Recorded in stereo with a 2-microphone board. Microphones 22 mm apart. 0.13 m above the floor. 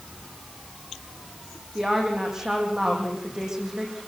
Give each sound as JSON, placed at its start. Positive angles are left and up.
{"t": 1.8, "sound": "a woman speaking", "side_deg": -20, "distance_m": 7.0}